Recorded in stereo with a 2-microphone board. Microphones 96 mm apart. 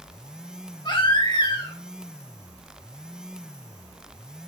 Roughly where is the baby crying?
Left.